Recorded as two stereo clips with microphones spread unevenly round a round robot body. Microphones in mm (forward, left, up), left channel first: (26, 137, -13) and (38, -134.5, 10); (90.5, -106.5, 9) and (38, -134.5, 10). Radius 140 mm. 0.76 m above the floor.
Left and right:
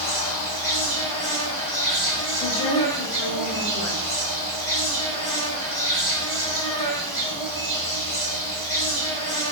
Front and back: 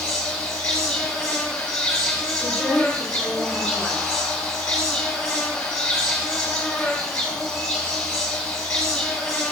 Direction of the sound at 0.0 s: 35° left.